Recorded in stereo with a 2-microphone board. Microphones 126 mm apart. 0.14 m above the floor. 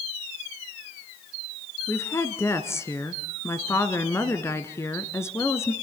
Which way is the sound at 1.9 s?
25° left (ahead or behind).